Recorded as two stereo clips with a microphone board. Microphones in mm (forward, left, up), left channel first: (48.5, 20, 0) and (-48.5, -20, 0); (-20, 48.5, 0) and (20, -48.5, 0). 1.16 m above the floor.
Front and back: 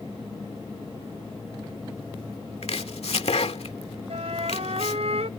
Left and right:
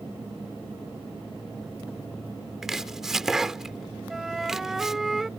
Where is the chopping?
20° left.